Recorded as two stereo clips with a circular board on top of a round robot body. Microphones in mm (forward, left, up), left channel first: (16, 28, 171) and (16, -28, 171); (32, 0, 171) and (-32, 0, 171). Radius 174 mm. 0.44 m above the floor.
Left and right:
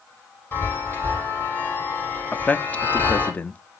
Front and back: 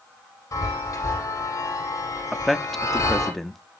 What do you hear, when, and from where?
0.5 s a chime: 35° left, 5.5 m
2.3 s a man speaking: 85° left, 0.9 m